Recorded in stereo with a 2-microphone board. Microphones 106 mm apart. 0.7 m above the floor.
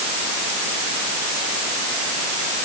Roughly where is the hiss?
No hiss in this recording.